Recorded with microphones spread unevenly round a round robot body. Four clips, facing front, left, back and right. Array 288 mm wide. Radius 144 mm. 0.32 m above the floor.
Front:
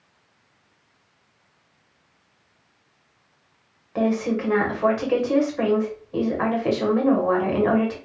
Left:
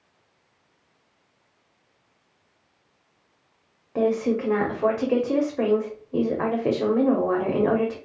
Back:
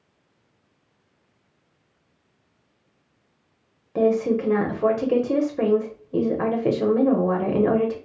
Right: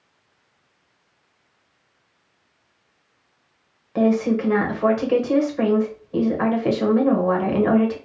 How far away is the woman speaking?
About 1.0 m.